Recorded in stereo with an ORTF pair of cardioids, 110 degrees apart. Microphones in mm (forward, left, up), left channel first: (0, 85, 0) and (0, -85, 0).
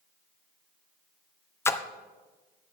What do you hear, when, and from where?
1.6 s a splash: 15° left, 0.6 m